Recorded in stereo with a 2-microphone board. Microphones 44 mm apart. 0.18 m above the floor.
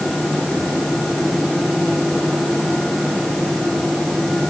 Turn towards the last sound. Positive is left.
No sound to turn to.